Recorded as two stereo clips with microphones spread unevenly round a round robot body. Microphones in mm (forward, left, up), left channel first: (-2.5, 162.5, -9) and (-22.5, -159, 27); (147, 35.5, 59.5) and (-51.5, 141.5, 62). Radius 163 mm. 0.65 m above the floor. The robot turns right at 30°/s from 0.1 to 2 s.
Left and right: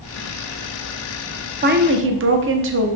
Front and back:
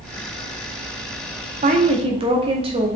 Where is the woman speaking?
155° right, 0.9 m; by 3.0 s 145° right, 0.9 m.